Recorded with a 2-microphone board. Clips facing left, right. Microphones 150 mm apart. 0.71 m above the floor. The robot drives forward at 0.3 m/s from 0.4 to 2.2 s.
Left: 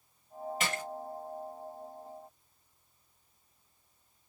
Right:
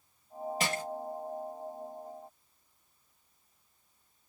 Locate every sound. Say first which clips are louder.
0.6 s crushing: right 2 dB; 35° right (ahead or behind), 1.1 m